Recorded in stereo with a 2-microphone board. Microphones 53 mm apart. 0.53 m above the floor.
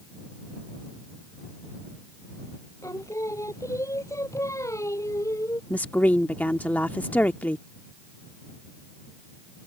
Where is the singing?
85° left.